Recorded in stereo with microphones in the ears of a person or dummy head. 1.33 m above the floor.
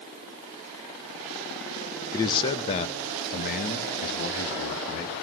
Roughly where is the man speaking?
Centre.